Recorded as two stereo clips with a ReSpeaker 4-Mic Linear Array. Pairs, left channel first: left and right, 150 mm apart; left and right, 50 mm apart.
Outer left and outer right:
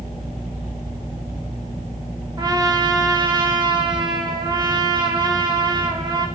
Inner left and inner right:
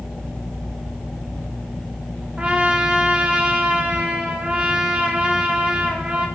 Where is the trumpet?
30° right (ahead or behind), 1.1 m.